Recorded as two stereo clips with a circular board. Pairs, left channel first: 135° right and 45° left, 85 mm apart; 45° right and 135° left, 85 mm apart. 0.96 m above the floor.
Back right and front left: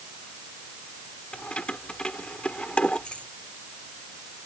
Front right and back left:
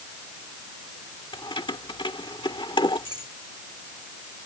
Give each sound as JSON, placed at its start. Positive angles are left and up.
{"t": 1.3, "sound": "keys jangling", "azimuth_deg": -55}